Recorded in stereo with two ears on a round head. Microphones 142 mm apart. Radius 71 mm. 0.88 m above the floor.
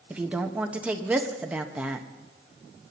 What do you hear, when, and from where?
0.1 s a woman speaking: 10° right (ahead or behind), 0.9 m